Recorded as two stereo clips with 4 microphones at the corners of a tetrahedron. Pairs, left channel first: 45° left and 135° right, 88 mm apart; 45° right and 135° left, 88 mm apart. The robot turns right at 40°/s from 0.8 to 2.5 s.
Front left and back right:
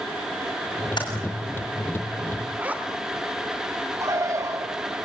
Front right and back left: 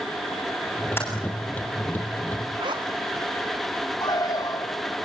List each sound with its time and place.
1.0 s typing on a keyboard: 15° left, 8 m; by 1.1 s 20° left, 8 m
2.6 s a zipper: 155° left, 3 m
4.0 s a bird: 85° right, 2.5 m